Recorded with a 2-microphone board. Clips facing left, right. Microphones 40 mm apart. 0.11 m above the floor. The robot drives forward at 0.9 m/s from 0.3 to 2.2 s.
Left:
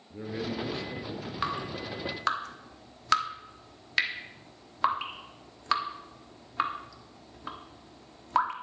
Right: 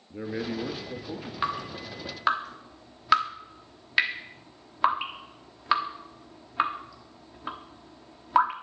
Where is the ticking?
No ticking in this recording.